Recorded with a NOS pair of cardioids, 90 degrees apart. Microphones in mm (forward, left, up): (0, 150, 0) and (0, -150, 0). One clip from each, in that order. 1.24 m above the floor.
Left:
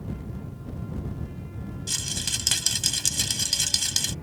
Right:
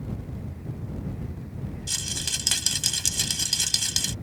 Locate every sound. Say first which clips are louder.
1.9 s a rattle: even; straight ahead